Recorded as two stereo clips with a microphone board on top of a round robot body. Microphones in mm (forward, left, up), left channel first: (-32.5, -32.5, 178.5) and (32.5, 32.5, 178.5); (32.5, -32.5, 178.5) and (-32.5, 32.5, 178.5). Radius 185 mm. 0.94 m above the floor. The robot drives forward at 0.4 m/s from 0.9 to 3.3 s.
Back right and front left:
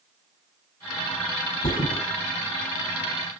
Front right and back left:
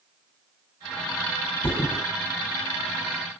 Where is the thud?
110° right, 3 m; by 2.0 s 115° right, 3 m.